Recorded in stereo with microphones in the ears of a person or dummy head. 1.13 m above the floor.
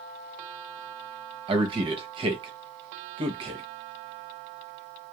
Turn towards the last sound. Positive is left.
turn(degrees=-30)  # may be behind; listen again after turning